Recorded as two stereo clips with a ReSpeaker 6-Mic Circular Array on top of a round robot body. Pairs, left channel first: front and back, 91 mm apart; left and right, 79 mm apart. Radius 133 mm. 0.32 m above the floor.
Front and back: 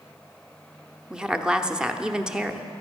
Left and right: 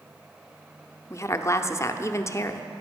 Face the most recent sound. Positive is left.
turn(degrees=105)